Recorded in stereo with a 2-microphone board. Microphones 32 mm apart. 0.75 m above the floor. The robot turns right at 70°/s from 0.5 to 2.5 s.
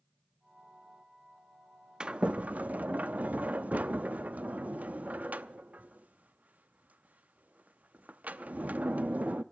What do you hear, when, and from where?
2.0 s a sliding door: 30° right (ahead or behind), 0.7 m; by 9.4 s 55° right (ahead or behind), 0.7 m